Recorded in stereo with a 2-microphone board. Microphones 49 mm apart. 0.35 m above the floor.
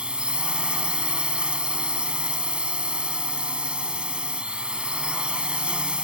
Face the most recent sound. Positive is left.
turn(degrees=-20)  # may be behind; listen again after turning